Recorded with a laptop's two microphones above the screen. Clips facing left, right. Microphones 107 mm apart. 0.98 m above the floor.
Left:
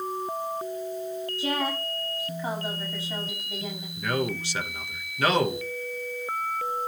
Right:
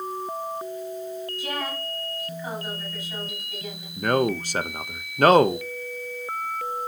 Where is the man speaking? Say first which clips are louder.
Right 6 dB; 45° right (ahead or behind), 0.8 m.